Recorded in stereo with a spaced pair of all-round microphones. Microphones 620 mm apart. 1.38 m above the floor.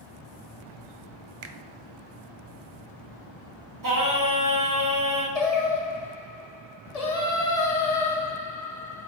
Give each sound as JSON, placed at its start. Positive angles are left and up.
{"t": 1.4, "sound": "a finger snap", "side_deg": -75, "distance_m": 0.6}
{"t": 3.8, "sound": "singing", "side_deg": -30, "distance_m": 1.2}
{"t": 5.3, "sound": "singing", "side_deg": 70, "distance_m": 0.9}